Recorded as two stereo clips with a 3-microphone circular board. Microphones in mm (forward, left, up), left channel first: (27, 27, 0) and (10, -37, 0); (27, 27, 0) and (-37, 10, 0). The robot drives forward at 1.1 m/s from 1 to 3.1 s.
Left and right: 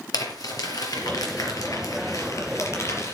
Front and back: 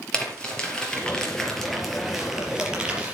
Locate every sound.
0.1 s crumpling: 90° left, 4 m; by 3.1 s 120° left, 4.5 m